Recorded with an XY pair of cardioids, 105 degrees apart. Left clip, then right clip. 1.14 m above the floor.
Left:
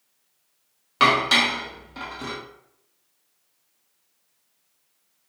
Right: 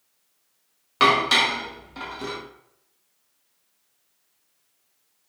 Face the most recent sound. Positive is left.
turn(degrees=0)